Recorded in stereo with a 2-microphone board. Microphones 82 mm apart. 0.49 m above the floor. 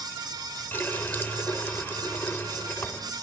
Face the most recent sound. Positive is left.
turn(degrees=25)  # may be behind; listen again after turning